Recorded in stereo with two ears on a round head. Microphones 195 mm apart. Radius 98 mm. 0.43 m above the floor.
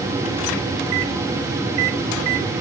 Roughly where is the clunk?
No clunk in this recording.